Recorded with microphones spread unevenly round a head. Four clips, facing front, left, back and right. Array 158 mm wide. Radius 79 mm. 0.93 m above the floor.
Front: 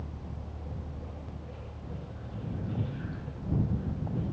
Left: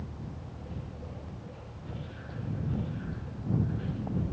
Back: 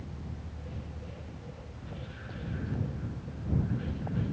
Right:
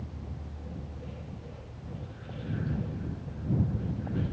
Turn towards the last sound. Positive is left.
No sound to turn to.